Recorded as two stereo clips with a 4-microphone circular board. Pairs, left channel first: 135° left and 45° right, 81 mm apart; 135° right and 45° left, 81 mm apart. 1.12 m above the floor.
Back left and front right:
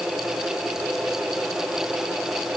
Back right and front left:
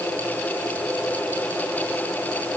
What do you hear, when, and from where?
Only background noise.